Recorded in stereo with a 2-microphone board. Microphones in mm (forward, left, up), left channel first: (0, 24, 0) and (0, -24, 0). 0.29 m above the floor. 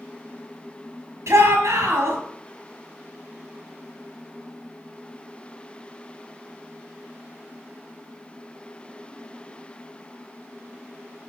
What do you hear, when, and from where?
1.3 s a shout: 75° right (ahead or behind), 5.5 m